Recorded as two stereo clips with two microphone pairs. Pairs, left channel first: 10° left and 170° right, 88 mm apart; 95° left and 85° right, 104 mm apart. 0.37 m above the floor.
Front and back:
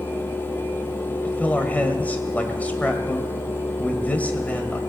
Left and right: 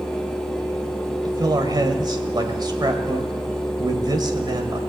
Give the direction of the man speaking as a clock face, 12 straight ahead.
2 o'clock.